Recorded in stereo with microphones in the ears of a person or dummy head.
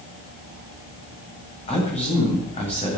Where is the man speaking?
30° left (ahead or behind), 9 m.